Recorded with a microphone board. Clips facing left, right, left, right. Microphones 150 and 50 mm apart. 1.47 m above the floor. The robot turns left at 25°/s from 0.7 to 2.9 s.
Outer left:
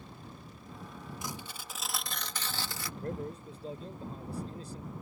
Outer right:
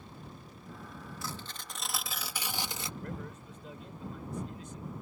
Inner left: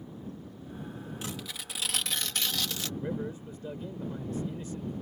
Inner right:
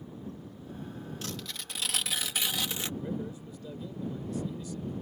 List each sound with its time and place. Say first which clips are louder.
1.2 s tearing paper: even, inner left 1 dB; 20° left; by 2.9 s 25° right
3.0 s a man speaking: outer left 4 dB, inner left 2 dB; 35° left (ahead or behind)